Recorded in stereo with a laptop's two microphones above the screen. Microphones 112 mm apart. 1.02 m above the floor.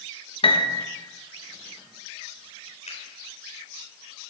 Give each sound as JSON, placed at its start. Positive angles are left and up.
{"t": 0.4, "sound": "a piano", "side_deg": 55, "distance_m": 1.0}
{"t": 2.9, "sound": "a finger snap", "side_deg": 80, "distance_m": 3.5}